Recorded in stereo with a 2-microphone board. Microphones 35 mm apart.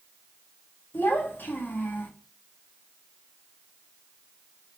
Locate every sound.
0.9 s a child speaking: 65° left (ahead or behind), 1.3 m